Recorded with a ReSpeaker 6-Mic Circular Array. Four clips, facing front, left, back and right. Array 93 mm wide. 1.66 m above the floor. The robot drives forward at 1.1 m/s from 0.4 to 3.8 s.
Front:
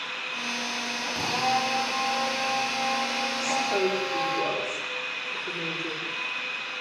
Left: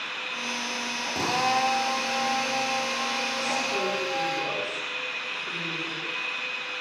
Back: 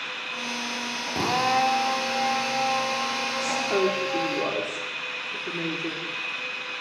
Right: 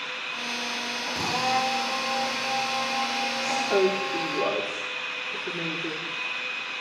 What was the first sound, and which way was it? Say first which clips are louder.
A drill: left 1 dB, back 4 dB; 160° left.